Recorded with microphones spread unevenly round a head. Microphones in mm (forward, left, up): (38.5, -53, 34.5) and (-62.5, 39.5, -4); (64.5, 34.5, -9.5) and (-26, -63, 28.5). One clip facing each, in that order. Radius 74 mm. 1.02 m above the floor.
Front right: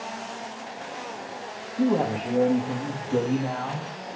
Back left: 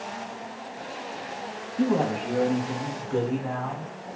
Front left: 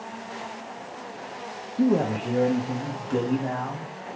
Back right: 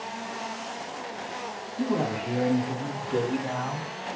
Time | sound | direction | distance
1.8 | a man speaking | 55° left | 0.8 m